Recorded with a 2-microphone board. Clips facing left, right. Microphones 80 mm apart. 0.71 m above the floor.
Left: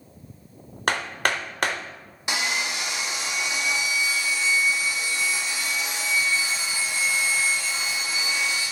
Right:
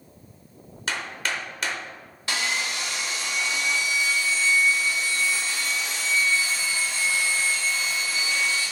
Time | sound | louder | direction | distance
0.9 | hammering | left 5 dB | 55° left (ahead or behind) | 0.6 m
2.3 | sawing | left 1 dB | 15° left (ahead or behind) | 0.9 m